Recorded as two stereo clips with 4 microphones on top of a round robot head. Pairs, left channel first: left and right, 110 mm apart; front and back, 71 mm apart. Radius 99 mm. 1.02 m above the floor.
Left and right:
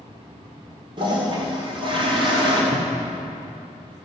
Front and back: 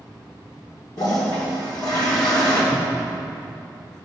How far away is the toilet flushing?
About 2.5 m.